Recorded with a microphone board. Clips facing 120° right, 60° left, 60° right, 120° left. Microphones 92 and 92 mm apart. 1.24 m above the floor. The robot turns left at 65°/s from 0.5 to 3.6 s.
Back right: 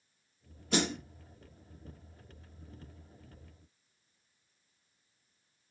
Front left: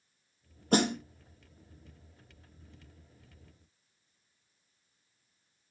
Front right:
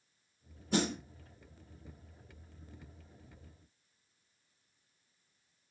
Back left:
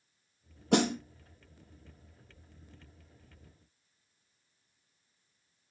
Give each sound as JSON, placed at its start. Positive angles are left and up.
{"t": 0.7, "sound": "a snare drum", "azimuth_deg": 110, "distance_m": 0.8}